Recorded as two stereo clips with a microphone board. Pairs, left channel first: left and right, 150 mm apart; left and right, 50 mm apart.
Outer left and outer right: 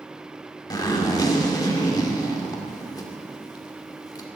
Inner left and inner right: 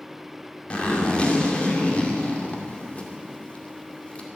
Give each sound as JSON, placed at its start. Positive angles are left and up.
{"t": 0.7, "sound": "a zipper", "side_deg": 30, "distance_m": 1.9}